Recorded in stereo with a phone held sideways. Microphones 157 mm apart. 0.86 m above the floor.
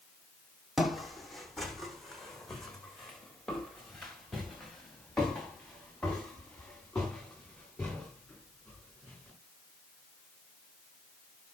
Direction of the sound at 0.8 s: Centre (ahead or behind).